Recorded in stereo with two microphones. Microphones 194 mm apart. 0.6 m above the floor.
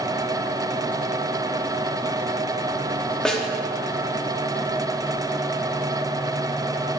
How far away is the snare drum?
About 0.9 m.